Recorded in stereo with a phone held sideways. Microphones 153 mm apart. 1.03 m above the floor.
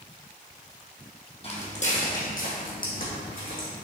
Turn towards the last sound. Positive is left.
turn(degrees=70)  # may be behind; listen again after turning